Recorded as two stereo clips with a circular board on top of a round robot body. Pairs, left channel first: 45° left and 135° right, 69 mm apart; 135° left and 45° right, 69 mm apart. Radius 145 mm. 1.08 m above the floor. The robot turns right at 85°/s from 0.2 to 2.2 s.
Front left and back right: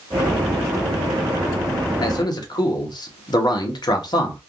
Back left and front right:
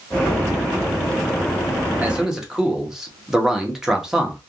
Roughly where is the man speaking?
Ahead.